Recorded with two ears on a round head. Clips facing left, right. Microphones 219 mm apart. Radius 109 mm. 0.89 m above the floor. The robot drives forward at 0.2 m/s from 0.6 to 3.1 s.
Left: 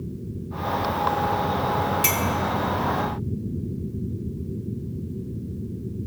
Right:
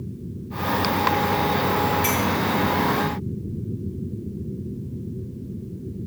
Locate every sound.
2.0 s a clink: 25° left (ahead or behind), 0.8 m